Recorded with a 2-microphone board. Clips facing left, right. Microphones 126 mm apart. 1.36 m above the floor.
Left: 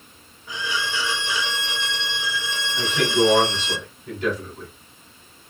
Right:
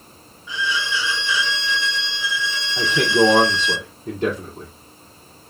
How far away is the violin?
About 0.9 m.